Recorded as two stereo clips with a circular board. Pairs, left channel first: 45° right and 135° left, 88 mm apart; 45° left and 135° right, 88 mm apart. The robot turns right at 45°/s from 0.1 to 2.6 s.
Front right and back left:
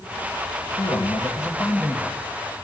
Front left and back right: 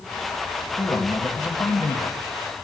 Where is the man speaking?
25° right, 2 m; by 2.2 s 40° left, 2 m.